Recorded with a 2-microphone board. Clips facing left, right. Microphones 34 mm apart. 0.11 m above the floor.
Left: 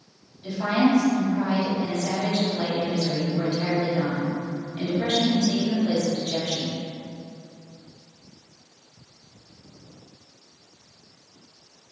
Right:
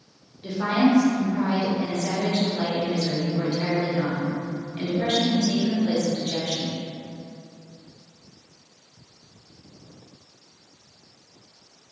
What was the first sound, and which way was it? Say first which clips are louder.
A woman speaking: right 1 dB; 35° right (ahead or behind).